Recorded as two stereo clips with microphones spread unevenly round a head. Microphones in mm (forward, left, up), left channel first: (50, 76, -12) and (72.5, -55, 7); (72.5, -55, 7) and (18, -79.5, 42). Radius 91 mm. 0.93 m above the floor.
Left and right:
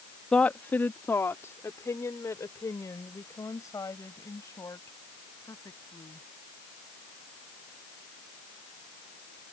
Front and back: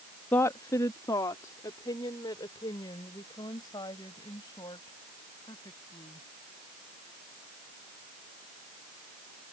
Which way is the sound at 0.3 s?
20° left.